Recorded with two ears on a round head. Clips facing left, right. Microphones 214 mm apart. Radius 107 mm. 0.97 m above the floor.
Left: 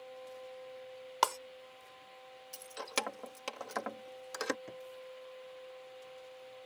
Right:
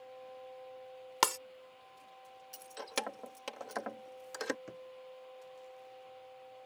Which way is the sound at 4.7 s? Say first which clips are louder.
Left 1 dB; 10° right (ahead or behind).